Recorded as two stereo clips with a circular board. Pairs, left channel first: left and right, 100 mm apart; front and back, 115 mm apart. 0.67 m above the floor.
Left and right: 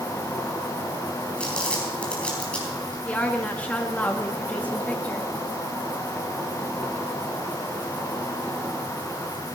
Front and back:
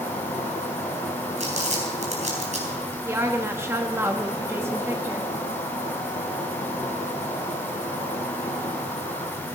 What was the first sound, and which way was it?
An insect, 15° left.